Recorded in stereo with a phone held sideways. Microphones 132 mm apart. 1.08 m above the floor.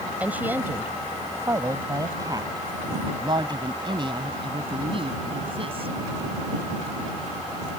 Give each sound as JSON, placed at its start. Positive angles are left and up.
{"t": 0.2, "sound": "a woman speaking", "side_deg": -10}